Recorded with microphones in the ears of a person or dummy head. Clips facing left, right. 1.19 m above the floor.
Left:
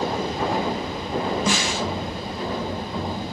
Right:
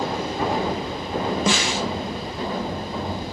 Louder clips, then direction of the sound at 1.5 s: Right 1 dB; 55° right (ahead or behind).